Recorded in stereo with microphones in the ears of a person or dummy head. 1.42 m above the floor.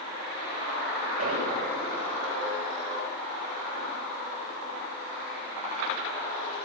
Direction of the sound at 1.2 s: 50° right (ahead or behind).